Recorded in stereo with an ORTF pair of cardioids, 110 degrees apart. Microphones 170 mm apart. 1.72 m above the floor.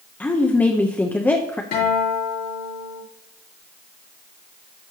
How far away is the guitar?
About 3 m.